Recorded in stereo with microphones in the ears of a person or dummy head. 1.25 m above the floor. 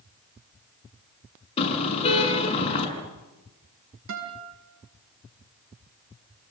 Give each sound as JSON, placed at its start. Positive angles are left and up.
{"t": 1.6, "sound": "a car horn", "side_deg": 35, "distance_m": 7.0}
{"t": 4.1, "sound": "a guitar", "side_deg": -75, "distance_m": 6.0}